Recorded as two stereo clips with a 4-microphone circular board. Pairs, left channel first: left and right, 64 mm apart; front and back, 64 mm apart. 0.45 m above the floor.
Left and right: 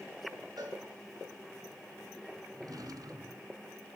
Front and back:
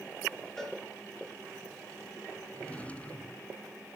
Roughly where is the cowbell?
Right.